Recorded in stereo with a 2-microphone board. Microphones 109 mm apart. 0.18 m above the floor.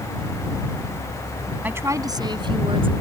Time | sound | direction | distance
1.6 | a woman speaking | 15° right (ahead or behind) | ?